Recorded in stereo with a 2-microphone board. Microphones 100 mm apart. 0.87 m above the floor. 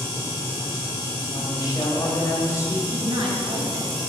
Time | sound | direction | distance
1.3 | a woman speaking | 40° left (ahead or behind) | 5 m
2.9 | a woman speaking | 70° right (ahead or behind) | 5.5 m